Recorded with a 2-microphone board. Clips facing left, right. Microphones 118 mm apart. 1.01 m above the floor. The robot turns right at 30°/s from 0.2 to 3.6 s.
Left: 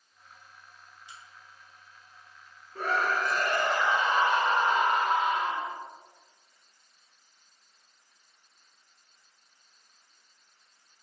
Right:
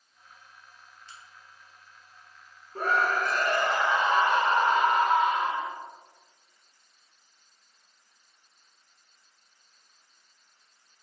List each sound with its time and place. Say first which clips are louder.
1.1 s a crack: left 1 dB; 15° left (ahead or behind), 0.7 m; by 3.8 s 80° left, 0.7 m
2.8 s a scream: right 2 dB; 45° right (ahead or behind), 0.6 m; by 5.7 s 60° right (ahead or behind), 0.6 m